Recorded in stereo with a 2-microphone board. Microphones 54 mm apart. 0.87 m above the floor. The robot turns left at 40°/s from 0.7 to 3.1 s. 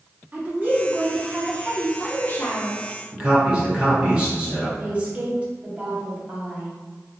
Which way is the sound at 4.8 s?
25° right (ahead or behind).